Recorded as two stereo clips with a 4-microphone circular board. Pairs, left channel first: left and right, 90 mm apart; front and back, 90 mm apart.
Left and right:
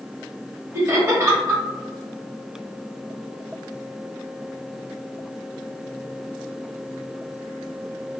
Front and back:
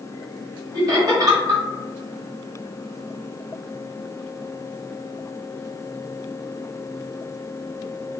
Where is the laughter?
145° right, 1.5 m.